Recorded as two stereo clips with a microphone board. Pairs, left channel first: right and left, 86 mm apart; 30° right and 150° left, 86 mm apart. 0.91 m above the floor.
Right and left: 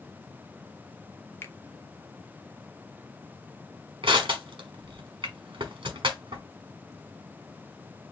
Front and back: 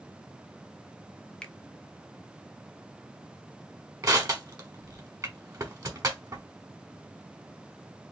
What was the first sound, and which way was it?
A finger snap, 95° right.